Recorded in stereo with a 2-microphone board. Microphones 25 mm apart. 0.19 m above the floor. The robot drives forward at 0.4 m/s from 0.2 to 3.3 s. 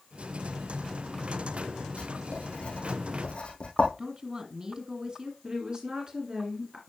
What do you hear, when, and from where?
2.0 s writing: 60° left (ahead or behind), 4 m; by 3.9 s 50° left (ahead or behind), 4 m
4.0 s a woman speaking: 35° right (ahead or behind), 1.9 m
5.4 s a woman speaking: 35° right (ahead or behind), 2 m